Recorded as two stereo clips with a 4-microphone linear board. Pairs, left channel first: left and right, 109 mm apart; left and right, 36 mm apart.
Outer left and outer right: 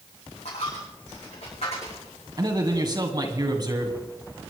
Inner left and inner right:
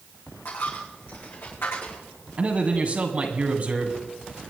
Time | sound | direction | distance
0.5 | a dropped coin | 85° left | 6 m
2.4 | a man speaking | 40° right (ahead or behind) | 2 m